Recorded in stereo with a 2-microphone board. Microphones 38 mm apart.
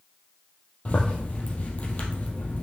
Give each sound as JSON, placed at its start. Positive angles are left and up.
{"t": 0.8, "sound": "a zipper", "side_deg": 35, "distance_m": 1.9}